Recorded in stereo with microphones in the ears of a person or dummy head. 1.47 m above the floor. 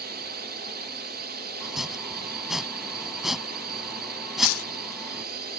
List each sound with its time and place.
0.0 s a drone: 45° right (ahead or behind)
1.6 s chopping: 5° right (ahead or behind)
4.4 s tearing paper: 80° left